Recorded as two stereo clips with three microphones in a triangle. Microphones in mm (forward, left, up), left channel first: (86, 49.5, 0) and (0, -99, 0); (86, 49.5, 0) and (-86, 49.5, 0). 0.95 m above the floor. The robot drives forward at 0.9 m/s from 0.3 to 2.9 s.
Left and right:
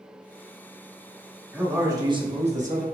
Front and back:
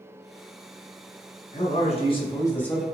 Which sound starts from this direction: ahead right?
A man speaking, at 1.5 s.